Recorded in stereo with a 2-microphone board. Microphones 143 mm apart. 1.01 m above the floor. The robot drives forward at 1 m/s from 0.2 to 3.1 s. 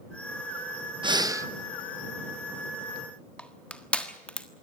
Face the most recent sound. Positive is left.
turn(degrees=10)  # may be behind; listen again after turning